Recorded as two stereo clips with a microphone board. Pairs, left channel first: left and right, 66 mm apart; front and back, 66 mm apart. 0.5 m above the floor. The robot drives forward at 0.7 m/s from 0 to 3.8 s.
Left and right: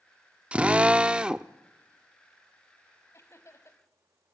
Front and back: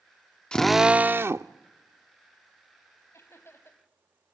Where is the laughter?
45° left, 4 m; by 3.8 s 50° left, 3.5 m.